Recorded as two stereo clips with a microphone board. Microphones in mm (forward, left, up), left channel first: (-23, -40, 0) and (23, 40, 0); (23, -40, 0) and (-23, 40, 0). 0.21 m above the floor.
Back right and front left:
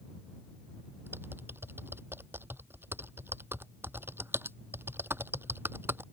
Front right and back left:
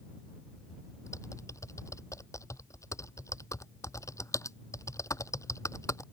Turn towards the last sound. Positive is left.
turn(degrees=-5)